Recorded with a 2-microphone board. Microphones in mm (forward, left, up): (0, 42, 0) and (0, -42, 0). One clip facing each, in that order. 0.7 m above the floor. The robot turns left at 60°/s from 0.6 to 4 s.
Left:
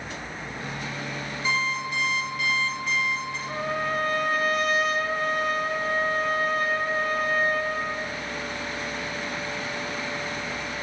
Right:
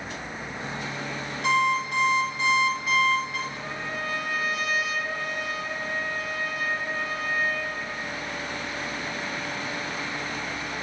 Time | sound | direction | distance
1.4 | an alarm clock | 90° right | 6 m
3.5 | a trumpet | 70° left | 0.8 m